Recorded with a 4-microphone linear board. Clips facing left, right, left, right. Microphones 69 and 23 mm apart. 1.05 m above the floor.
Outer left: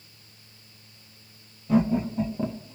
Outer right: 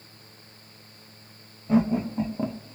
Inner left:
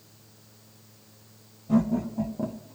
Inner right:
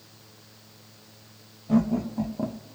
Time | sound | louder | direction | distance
1.7 | laughter | even, inner right 1 dB | 25° right (ahead or behind) | 1.3 m